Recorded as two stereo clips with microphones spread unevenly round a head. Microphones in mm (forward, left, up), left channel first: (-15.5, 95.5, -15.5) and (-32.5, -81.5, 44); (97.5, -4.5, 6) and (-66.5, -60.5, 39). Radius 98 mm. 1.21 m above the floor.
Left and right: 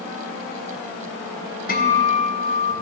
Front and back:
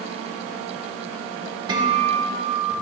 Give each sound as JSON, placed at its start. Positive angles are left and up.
{"t": 1.7, "sound": "a guitar", "azimuth_deg": 135, "distance_m": 1.6}